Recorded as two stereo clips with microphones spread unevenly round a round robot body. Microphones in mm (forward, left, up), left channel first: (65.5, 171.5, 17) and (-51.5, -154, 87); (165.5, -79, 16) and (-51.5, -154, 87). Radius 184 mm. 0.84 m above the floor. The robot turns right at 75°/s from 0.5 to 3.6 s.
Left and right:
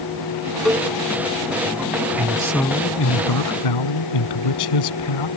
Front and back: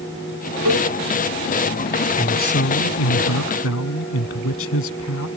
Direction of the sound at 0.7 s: 160° left.